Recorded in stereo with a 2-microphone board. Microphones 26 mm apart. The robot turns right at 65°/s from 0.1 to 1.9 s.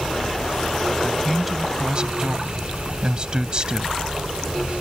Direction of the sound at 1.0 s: 155° left.